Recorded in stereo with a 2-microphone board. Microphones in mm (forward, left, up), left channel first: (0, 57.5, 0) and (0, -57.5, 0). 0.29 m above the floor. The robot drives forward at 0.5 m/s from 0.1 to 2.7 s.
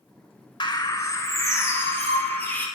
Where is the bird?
45° left (ahead or behind), 0.5 m; by 2.7 s 15° left (ahead or behind), 1.5 m.